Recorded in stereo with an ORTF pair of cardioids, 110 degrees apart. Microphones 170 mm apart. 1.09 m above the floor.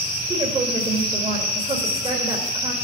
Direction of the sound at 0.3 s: 30° right.